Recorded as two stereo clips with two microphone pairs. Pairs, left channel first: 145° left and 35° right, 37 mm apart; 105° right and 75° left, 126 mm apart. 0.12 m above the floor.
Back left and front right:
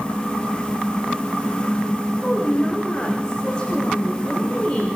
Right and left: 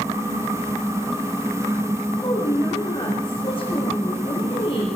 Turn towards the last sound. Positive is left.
turn(degrees=-150)